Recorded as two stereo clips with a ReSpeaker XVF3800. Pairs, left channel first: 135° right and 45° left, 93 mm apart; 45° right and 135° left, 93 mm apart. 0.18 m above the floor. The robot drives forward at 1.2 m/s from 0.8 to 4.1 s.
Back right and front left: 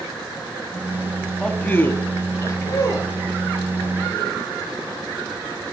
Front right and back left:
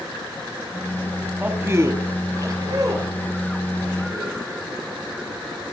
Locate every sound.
1.4 s a man speaking: 160° left, 1.0 m; by 4.4 s straight behind, 3.5 m